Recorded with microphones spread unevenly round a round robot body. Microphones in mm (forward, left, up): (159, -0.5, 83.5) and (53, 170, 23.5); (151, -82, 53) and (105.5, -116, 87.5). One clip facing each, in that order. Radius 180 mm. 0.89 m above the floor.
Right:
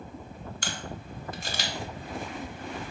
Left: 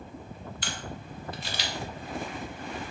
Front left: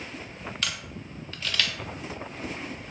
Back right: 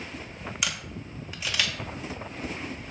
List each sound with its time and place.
0.6 s a camera shutter: 20° right, 0.8 m